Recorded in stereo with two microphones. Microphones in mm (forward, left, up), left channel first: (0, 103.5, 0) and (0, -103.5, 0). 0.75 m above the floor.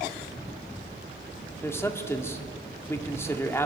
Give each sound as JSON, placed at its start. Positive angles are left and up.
{"t": 1.6, "sound": "a man speaking", "side_deg": 10, "distance_m": 2.0}